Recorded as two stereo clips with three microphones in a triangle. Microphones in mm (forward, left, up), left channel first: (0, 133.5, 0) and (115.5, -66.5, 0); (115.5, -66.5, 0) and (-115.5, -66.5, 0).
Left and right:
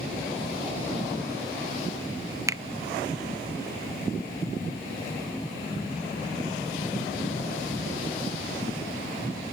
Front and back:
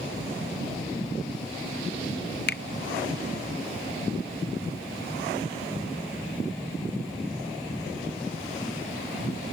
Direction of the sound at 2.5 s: 15° left.